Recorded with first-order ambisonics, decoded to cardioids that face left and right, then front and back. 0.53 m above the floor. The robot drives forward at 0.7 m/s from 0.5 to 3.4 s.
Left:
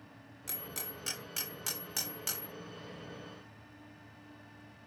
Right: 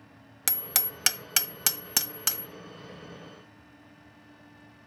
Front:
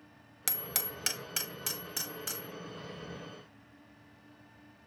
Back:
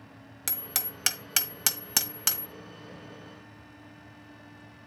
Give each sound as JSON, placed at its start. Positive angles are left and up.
{"t": 0.5, "sound": "hammering", "azimuth_deg": -90, "distance_m": 0.9}